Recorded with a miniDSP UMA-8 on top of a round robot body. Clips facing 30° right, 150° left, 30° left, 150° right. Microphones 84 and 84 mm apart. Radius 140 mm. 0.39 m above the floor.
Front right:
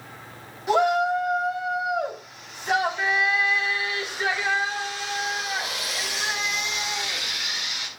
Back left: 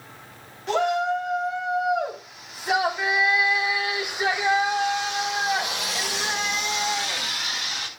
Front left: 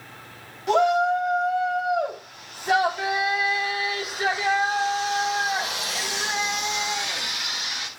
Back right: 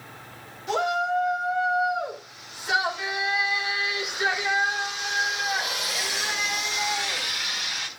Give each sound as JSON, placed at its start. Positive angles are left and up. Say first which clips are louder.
{"t": 0.7, "sound": "a shout", "louder": "front right 2 dB, front left 5 dB", "azimuth_deg": 50, "distance_m": 4.5}